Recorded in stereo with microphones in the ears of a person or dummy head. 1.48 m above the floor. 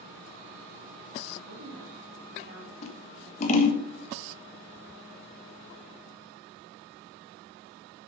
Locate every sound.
1.5 s a woman speaking: 60° right (ahead or behind), 3 m
2.8 s scissors: 50° left (ahead or behind), 1.2 m